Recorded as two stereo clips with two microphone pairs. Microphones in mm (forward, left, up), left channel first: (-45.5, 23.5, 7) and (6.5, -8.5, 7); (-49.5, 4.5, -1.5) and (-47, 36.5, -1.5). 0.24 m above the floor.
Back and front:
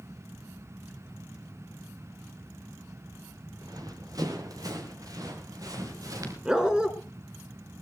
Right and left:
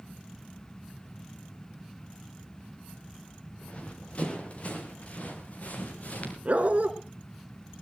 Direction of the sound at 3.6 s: 40° right.